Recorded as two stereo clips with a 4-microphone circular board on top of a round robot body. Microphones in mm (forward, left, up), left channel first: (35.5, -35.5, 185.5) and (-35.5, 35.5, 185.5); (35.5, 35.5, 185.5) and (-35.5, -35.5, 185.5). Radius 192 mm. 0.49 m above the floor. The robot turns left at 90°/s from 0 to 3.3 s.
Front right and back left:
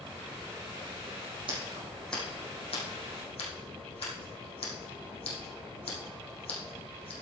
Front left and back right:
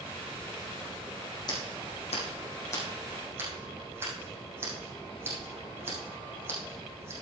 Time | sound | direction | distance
1.5 | scissors | 95° left | 4.5 m